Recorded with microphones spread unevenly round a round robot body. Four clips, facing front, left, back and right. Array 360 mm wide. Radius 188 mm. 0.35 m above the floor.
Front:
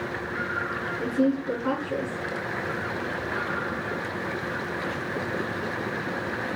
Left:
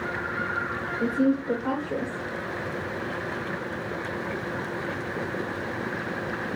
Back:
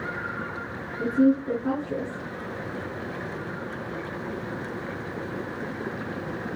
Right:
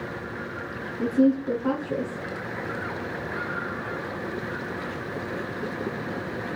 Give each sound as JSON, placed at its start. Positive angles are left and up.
{"t": 1.0, "sound": "a woman speaking", "azimuth_deg": -125, "distance_m": 3.0}